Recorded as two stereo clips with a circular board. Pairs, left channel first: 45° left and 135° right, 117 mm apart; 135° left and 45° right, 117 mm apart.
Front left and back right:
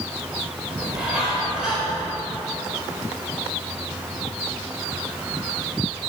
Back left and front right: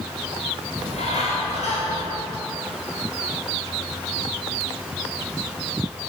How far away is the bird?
About 4 m.